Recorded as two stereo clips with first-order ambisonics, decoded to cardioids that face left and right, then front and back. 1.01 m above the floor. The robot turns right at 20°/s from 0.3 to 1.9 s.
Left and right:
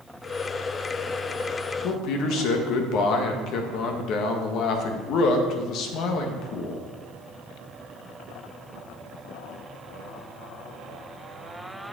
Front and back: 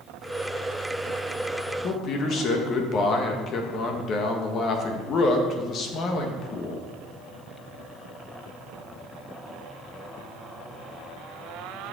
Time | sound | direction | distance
1.8 | a man speaking | 50° left | 1.2 m